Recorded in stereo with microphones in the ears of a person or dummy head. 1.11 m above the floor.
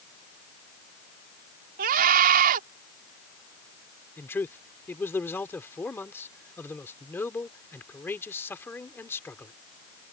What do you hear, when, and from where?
1.8 s a scream: 50° right (ahead or behind)
4.2 s a man speaking: 15° left (ahead or behind)